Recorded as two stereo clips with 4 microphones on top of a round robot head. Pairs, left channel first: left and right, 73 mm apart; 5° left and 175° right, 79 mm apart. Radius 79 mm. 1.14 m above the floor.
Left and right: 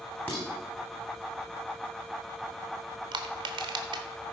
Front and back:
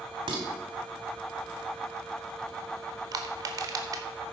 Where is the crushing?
125° right, 0.8 m.